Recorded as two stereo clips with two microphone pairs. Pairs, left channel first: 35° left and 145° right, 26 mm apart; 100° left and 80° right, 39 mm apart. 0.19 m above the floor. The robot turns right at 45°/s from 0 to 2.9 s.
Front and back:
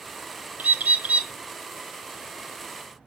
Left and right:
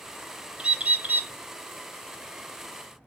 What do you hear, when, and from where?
0.6 s a bird: 145° right, 0.5 m; by 1.3 s 110° right, 0.5 m